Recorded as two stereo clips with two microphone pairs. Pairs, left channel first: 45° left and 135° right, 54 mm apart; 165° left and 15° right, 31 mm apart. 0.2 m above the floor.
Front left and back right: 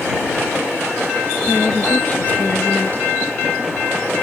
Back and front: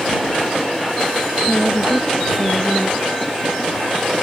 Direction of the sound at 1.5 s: 100° left.